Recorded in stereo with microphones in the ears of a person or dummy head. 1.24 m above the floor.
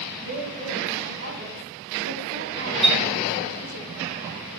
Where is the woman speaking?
40° right (ahead or behind), 3 m; by 3.8 s 80° right, 2.5 m.